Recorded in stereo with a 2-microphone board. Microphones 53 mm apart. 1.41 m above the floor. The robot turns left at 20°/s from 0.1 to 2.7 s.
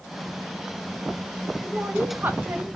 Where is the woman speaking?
25° right (ahead or behind), 0.6 m; by 2.7 s 40° right (ahead or behind), 0.6 m.